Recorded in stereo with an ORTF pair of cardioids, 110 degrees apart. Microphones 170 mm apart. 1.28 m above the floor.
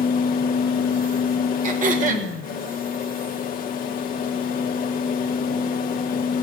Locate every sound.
0.0 s a fan: 60° left, 1.2 m
1.6 s throat clearing: 55° right, 1.8 m